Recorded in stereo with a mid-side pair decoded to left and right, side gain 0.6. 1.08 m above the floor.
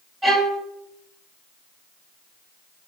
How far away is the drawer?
I don't hear a drawer.